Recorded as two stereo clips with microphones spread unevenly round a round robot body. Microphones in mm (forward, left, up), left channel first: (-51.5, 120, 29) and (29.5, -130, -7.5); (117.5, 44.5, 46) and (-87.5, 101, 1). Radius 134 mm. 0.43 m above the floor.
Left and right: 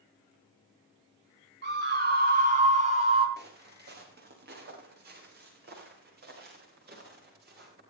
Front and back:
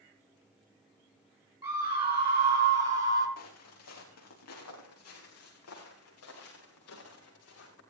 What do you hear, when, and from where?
1.6 s a scream: 120° right, 5.5 m; by 3.3 s 140° right, 5 m
3.4 s footsteps: 15° right, 6 m